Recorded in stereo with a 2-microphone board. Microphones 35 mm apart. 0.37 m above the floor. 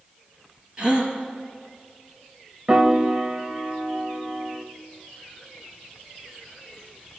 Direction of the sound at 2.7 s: 25° right (ahead or behind).